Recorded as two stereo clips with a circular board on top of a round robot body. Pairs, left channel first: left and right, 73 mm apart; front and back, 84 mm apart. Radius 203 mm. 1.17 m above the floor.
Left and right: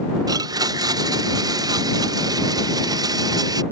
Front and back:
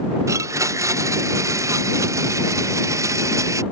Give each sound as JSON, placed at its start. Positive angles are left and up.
{"t": 0.3, "sound": "a blender", "azimuth_deg": -125}